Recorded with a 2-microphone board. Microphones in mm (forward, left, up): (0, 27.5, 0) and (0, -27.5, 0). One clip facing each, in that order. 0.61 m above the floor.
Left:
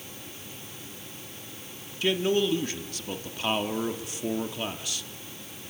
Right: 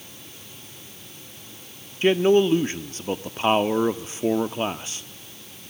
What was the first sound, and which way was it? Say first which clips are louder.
A man speaking: right 7 dB; 35° right (ahead or behind).